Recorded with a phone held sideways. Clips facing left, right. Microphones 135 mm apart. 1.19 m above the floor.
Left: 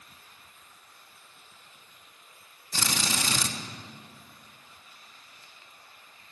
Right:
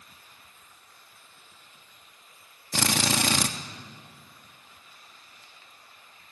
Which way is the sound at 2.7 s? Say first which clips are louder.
Right 5 dB; 65° right (ahead or behind).